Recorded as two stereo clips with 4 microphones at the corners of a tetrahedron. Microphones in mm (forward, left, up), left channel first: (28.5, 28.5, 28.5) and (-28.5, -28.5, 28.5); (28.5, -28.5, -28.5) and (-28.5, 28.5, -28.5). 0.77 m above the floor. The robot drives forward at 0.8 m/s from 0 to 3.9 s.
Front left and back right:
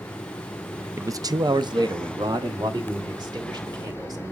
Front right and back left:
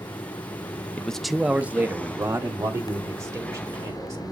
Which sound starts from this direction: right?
A man speaking, at 1.0 s.